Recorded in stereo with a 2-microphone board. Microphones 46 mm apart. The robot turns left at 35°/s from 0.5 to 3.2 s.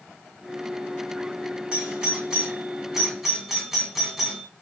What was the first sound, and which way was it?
A doorbell, 20° right (ahead or behind).